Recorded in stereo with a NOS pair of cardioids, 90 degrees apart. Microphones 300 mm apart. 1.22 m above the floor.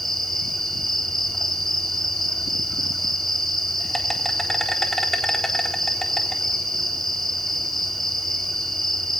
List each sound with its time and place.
0.0 s an insect: straight ahead, 4 m